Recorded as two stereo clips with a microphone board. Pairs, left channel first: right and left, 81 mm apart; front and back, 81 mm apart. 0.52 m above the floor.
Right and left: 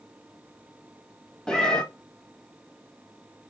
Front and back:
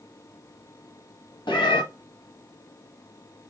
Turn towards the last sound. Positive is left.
turn(degrees=-10)